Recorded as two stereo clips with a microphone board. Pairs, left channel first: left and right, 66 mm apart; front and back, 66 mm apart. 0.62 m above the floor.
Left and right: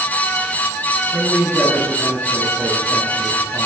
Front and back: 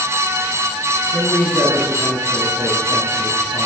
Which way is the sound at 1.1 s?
20° left.